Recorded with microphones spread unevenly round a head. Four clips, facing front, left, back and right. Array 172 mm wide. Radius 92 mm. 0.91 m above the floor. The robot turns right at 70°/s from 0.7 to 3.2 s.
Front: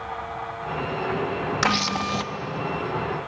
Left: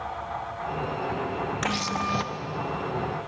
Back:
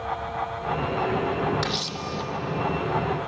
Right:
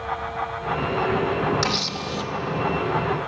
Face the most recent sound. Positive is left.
turn(degrees=100)